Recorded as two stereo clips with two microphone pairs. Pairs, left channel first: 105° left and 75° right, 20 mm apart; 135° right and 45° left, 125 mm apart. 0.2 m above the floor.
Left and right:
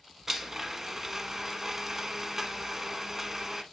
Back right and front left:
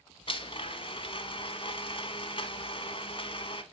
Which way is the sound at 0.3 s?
145° right.